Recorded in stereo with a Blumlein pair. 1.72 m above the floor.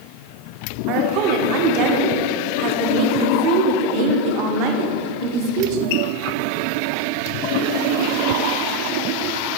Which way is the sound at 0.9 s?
45° right.